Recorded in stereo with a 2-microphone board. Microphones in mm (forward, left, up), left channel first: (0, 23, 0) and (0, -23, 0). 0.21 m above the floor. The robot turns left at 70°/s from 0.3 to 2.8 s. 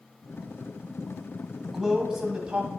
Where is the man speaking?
Centre (ahead or behind), 1.4 m; by 2.7 s 25° right (ahead or behind), 1.4 m.